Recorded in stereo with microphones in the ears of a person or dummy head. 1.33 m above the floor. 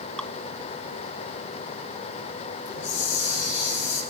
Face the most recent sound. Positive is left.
turn(degrees=70)  # may be behind; listen again after turning